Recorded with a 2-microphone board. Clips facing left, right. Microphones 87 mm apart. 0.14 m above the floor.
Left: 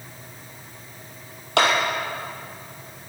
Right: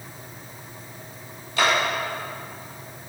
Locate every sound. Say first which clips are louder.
1.6 s a clap: left 2 dB; 75° left (ahead or behind), 3.5 m